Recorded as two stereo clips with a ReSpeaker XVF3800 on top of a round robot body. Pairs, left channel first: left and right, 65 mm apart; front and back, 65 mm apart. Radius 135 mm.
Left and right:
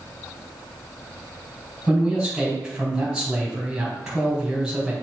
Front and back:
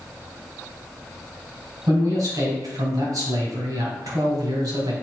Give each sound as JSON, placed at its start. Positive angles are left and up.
{"t": 1.9, "sound": "a man speaking", "azimuth_deg": -170, "distance_m": 3.5}